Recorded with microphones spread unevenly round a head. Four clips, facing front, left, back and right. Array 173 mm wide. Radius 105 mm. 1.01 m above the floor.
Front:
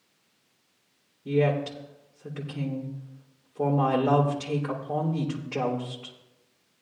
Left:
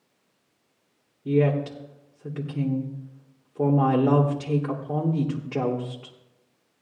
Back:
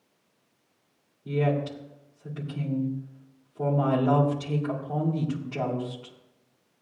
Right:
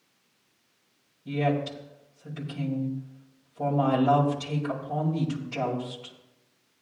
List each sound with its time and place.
1.2 s a woman speaking: 80° left, 3 m